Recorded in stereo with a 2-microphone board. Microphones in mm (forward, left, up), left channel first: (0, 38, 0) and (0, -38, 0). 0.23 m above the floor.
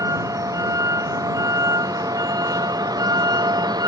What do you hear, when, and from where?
0.0 s a vehicle: 50° right (ahead or behind); by 3.9 s 60° right (ahead or behind)